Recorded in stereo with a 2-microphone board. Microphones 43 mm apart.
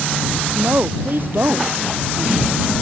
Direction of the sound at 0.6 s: 55° right (ahead or behind).